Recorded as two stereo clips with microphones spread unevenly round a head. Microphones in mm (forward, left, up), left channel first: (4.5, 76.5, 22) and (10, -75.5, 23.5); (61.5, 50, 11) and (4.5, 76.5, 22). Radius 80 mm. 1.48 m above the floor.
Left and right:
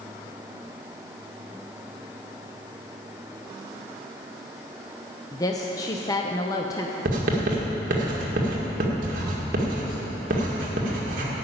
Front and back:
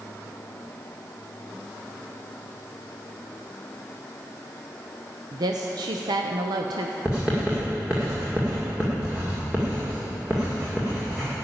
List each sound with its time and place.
5.3 s a woman speaking: 160° left, 0.7 m
7.0 s writing: 125° right, 1.9 m